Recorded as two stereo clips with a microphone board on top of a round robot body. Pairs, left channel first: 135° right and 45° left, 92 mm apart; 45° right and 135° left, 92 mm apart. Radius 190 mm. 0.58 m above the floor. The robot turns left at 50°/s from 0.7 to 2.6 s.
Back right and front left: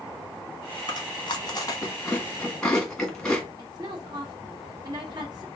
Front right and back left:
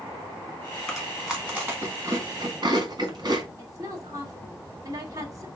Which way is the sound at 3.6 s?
85° left.